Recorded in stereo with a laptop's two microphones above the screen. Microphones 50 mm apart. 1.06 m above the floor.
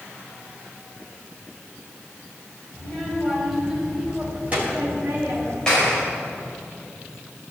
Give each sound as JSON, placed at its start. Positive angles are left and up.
{"t": 2.7, "sound": "a child speaking", "side_deg": 10, "distance_m": 4.0}
{"t": 5.7, "sound": "a clap", "side_deg": 15, "distance_m": 5.5}